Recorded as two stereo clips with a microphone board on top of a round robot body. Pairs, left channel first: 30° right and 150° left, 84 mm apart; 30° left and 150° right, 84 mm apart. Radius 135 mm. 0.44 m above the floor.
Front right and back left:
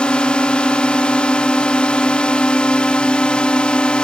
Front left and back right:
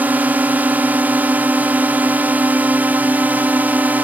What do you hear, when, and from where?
0.0 s a drone: 95° right